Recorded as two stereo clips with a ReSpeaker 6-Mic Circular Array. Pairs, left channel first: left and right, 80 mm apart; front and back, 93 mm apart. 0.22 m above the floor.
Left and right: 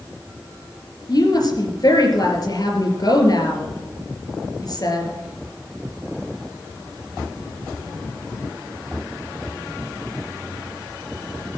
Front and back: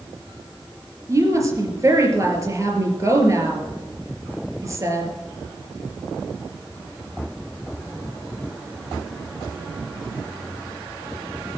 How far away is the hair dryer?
No hair dryer in this recording.